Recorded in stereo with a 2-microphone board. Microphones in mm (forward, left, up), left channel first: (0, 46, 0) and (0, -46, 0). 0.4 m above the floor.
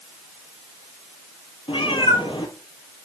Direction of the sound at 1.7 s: 80° left.